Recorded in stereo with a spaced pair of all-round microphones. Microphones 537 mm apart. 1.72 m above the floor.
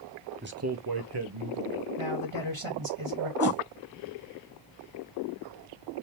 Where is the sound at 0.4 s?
20° right (ahead or behind), 0.8 m; by 1.9 s 65° right (ahead or behind), 1.5 m.